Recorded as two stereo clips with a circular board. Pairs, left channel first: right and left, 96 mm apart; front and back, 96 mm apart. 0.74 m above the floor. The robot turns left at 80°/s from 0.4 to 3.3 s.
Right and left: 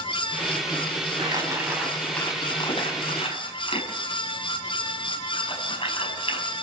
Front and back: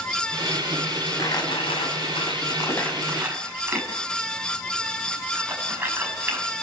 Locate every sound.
1.2 s crumpling: 60° left, 6 m; by 6.4 s 110° right, 6 m